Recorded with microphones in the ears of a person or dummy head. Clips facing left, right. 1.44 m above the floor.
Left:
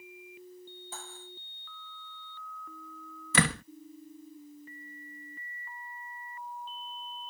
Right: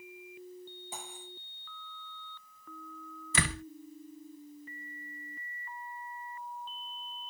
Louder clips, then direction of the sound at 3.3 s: Left 6 dB; 60° left (ahead or behind).